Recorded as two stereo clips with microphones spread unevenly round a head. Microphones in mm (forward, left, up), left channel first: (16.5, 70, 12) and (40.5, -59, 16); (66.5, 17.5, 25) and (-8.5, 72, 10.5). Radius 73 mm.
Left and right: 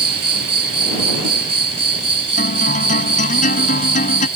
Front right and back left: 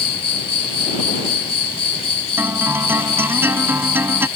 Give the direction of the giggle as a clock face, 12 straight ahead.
No giggle in this recording.